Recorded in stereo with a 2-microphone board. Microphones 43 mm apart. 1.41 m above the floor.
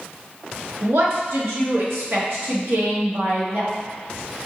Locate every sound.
0.8 s a woman speaking: 80° right, 1.4 m